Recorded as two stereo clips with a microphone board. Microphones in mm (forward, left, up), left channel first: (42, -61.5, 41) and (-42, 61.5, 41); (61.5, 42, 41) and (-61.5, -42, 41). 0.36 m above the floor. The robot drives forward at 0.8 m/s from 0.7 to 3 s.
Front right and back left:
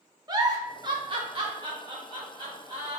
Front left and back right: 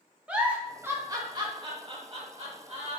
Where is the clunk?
I don't hear a clunk.